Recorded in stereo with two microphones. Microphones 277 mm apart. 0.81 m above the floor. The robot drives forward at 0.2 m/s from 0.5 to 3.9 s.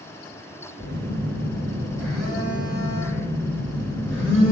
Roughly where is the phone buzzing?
Left.